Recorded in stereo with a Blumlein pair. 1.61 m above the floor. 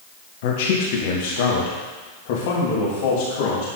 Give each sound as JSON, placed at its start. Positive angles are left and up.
{"t": 0.4, "sound": "a man speaking", "azimuth_deg": 50, "distance_m": 1.8}